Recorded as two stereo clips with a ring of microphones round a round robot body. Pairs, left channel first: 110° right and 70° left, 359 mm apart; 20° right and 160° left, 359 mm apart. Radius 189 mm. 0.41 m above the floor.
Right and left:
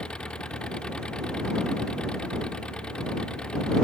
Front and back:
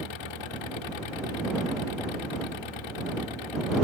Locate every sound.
0.0 s an engine running: 25° right